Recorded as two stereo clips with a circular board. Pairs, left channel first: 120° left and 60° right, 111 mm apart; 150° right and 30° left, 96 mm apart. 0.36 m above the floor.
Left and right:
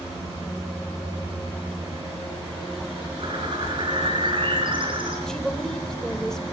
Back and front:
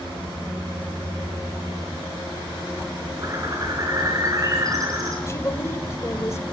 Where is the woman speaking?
160° right, 1.2 m.